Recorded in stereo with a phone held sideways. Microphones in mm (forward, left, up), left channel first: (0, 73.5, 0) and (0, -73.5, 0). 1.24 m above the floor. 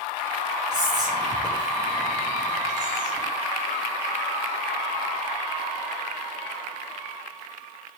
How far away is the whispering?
About 1.9 m.